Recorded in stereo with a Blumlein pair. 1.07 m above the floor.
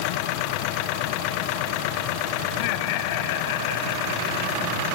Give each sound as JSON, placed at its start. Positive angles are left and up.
{"t": 2.5, "sound": "laughter", "azimuth_deg": 45}